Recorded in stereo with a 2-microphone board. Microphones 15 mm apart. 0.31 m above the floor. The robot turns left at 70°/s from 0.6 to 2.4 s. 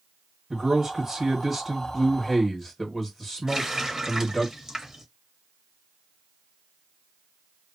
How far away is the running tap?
About 0.8 m.